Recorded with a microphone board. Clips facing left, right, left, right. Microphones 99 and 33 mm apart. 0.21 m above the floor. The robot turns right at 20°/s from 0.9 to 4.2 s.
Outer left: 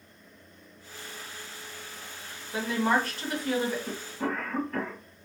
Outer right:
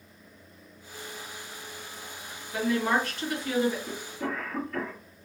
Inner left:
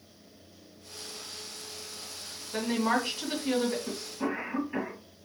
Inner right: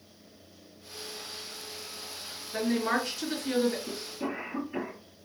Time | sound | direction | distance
2.5 | a woman speaking | 35° left (ahead or behind) | 1.8 m
3.9 | a cough | 40° left (ahead or behind) | 1.6 m